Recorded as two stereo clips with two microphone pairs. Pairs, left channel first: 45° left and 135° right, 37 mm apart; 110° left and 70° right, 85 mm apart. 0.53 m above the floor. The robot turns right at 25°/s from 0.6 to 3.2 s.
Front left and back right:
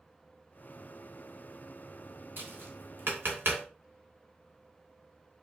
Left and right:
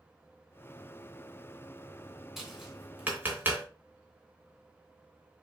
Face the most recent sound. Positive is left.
turn(degrees=-140)